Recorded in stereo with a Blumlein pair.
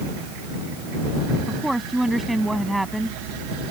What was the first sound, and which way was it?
A woman speaking, 5° right.